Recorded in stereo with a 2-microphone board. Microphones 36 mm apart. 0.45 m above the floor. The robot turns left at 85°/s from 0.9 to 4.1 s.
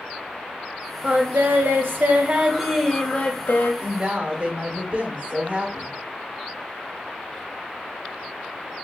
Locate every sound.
1.0 s singing: 35° right, 0.5 m; by 3.7 s 100° left, 0.5 m
3.8 s a woman speaking: 25° right (ahead or behind), 1.0 m; by 5.9 s 40° right (ahead or behind), 1.0 m